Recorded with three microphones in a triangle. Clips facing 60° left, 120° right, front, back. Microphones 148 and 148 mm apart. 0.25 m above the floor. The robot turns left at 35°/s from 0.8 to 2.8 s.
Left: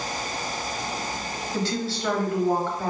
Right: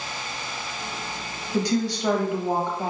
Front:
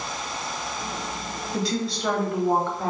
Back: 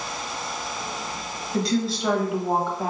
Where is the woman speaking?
85° right, 0.9 m; by 2.9 s 125° right, 0.9 m.